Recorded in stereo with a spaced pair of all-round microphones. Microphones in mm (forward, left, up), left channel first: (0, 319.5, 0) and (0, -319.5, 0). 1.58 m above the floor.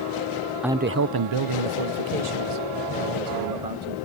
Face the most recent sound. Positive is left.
turn(degrees=-80)